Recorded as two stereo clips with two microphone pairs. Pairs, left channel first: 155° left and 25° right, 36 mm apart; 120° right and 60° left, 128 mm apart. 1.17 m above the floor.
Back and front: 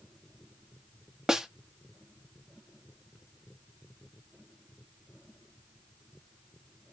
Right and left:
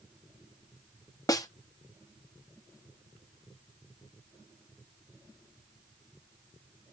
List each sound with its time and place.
1.3 s a snare drum: 80° right, 0.7 m